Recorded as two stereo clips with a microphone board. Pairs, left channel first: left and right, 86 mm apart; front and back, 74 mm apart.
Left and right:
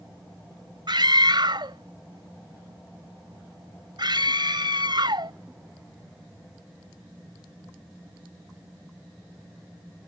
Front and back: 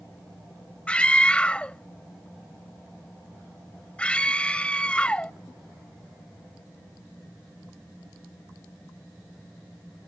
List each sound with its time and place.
0.9 s a scream: 75° right